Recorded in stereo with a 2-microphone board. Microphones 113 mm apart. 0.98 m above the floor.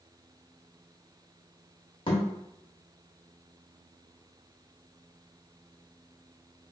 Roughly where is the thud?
Left.